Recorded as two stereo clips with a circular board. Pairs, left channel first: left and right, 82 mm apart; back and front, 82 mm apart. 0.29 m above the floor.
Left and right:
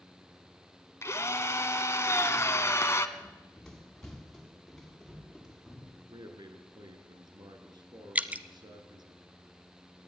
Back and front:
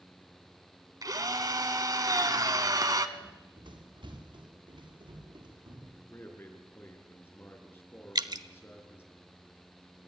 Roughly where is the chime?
I don't hear a chime.